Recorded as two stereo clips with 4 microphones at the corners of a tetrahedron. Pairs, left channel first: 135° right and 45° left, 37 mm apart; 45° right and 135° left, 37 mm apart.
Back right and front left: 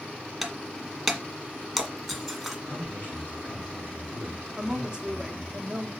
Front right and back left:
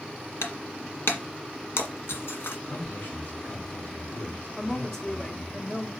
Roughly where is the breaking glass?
Ahead right.